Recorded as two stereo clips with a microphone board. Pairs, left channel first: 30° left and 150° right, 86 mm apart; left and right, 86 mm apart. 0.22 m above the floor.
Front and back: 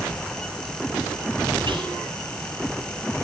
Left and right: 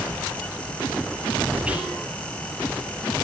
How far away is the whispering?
About 5 m.